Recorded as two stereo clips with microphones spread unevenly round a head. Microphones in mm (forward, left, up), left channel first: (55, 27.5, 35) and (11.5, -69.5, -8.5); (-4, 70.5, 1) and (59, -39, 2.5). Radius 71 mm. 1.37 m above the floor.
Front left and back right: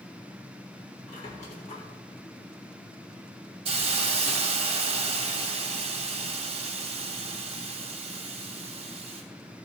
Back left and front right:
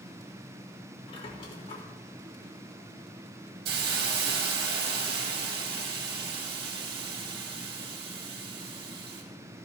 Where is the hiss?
85° right, 2.5 m.